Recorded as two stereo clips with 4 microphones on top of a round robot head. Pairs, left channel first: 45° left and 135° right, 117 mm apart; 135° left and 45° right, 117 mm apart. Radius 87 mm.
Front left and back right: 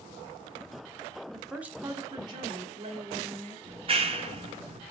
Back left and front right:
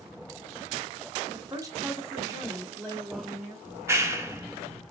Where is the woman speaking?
35° right, 0.8 m; by 3.5 s 120° right, 1.8 m.